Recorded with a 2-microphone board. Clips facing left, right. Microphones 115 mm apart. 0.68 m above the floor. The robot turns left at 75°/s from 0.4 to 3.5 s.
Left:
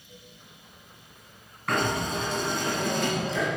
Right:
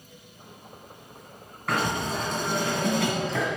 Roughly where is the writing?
Ahead.